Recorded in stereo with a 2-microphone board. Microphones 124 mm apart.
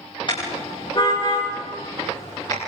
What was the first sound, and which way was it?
A car horn, 45° left (ahead or behind).